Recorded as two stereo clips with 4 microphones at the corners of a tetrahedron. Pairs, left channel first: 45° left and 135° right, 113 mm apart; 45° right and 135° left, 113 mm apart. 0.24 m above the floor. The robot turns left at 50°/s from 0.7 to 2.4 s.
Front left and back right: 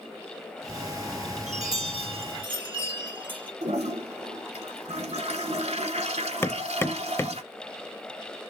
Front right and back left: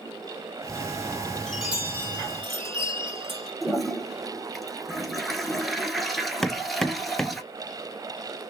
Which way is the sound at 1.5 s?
135° right.